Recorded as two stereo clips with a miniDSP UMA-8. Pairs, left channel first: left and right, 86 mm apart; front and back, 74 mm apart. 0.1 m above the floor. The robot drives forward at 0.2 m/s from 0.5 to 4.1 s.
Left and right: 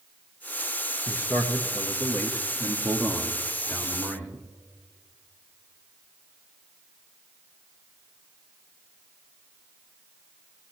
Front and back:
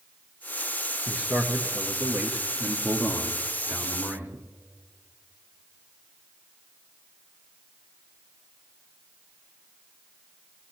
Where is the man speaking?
115° left, 1.6 m; by 4.5 s 140° left, 1.8 m.